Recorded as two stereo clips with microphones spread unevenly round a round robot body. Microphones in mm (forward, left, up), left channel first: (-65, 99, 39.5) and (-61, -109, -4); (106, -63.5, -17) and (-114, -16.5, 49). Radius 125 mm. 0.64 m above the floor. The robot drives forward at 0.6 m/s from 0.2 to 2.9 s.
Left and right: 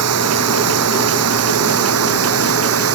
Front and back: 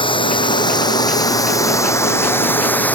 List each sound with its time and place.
0.0 s running water: 85° right; by 3.0 s 95° right